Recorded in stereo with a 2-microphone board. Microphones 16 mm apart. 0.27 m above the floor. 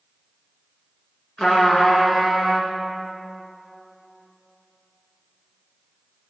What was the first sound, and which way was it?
A trumpet, 65° left (ahead or behind).